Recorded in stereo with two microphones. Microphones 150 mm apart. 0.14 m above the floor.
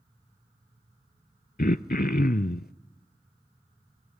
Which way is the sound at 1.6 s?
70° left (ahead or behind).